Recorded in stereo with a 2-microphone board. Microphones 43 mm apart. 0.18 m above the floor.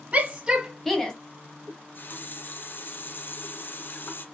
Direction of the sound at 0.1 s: 25° right (ahead or behind).